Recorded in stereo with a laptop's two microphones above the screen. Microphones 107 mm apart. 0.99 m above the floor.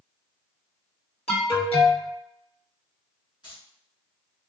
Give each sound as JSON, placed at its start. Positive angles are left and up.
{"t": 1.3, "sound": "an alarm", "side_deg": 70, "distance_m": 1.2}
{"t": 3.4, "sound": "keys jangling", "side_deg": 45, "distance_m": 1.5}